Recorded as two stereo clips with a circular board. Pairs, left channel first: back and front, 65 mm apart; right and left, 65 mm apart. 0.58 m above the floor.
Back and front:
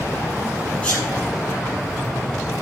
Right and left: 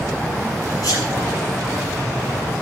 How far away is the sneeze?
About 5.5 m.